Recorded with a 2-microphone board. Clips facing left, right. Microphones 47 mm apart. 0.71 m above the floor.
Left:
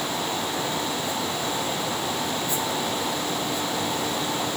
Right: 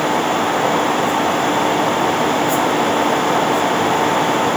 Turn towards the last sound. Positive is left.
No sound to turn to.